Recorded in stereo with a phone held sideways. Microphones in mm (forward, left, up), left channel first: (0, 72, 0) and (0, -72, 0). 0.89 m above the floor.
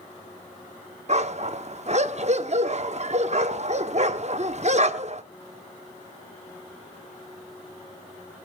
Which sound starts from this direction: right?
A dog barking, at 1.1 s.